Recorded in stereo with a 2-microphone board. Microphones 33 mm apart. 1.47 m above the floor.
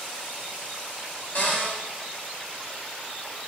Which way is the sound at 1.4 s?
60° left (ahead or behind).